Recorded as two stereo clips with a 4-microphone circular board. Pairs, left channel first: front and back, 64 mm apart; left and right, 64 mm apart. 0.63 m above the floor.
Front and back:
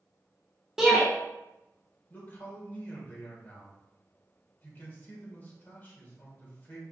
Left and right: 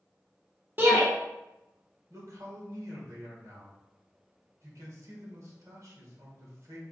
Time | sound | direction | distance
0.8 | a shout | 105° right | 0.9 m
2.1 | a man speaking | 60° right | 1.7 m